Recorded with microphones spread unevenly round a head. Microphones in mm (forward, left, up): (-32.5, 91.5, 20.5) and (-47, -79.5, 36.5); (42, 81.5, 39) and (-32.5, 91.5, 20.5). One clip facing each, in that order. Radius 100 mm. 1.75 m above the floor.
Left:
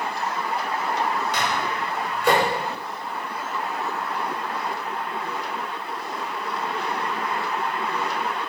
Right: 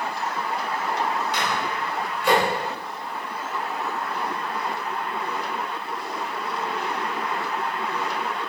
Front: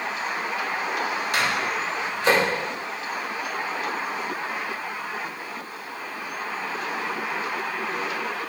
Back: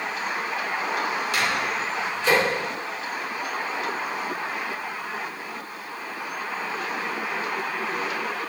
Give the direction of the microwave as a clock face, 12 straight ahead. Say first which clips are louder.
Left 1 dB, front 2 dB; 11 o'clock.